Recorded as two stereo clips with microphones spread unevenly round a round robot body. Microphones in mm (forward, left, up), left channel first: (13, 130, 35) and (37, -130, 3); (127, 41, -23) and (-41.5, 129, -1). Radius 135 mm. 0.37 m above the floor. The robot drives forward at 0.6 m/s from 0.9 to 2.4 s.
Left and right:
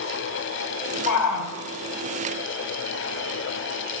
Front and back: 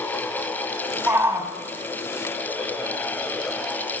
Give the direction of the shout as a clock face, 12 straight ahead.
10 o'clock.